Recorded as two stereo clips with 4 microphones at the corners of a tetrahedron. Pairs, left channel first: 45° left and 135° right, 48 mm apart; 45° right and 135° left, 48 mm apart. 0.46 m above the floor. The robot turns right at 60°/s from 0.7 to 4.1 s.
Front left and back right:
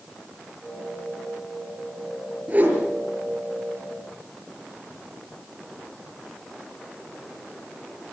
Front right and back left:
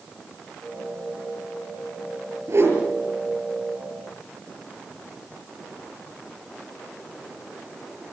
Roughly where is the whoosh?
Behind.